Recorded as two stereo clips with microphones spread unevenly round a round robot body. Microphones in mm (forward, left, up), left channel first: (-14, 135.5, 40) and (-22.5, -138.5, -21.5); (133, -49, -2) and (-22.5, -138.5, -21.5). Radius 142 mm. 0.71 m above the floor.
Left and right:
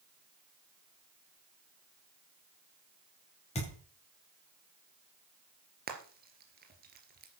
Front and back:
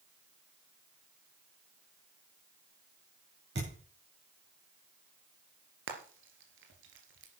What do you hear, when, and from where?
3.5 s a thud: 155° left, 7.5 m
5.9 s frying: 150° right, 3 m